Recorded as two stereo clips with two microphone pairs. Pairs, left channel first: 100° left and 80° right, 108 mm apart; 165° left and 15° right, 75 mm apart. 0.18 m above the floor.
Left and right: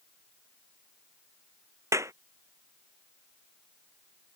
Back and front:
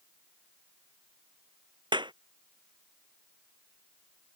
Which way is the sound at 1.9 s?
15° right.